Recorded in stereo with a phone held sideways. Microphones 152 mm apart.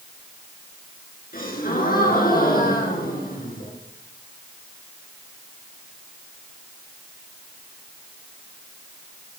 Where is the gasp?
70° left (ahead or behind), 7.5 m.